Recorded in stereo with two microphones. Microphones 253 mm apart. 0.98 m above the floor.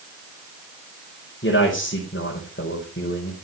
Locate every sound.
1.4 s a man speaking: 50° left (ahead or behind), 5 m